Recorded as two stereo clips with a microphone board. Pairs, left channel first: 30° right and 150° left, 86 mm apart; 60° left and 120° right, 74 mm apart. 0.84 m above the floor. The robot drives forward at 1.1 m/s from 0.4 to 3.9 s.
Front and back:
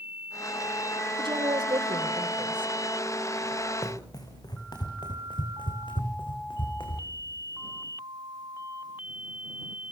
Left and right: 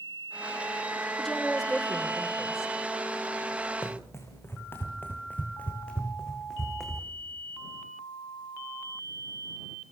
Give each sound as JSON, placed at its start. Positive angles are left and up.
{"t": 1.2, "sound": "a woman speaking", "azimuth_deg": 140, "distance_m": 2.5}
{"t": 3.8, "sound": "running footsteps", "azimuth_deg": 10, "distance_m": 4.5}